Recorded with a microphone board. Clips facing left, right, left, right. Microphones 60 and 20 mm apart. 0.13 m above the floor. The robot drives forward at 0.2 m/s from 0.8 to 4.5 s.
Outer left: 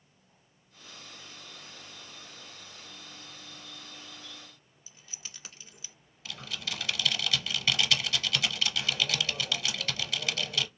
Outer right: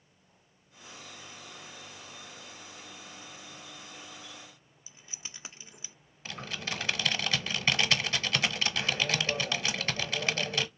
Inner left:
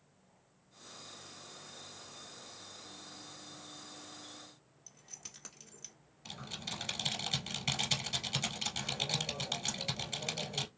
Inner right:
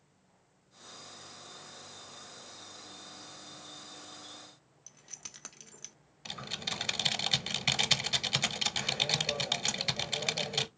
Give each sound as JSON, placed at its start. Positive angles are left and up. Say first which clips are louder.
{"t": 4.9, "sound": "keys jangling", "louder": "outer right 1 dB, inner right 3 dB", "side_deg": -25, "distance_m": 0.8}
{"t": 6.2, "sound": "typing on a keyboard", "louder": "outer right 2 dB, inner right 5 dB", "side_deg": -35, "distance_m": 0.7}